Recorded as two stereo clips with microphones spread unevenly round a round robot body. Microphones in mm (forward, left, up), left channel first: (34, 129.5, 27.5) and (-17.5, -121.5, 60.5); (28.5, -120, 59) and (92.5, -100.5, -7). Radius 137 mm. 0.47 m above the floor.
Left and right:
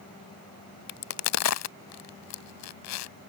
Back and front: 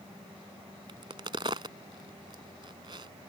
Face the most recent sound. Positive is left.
turn(degrees=110)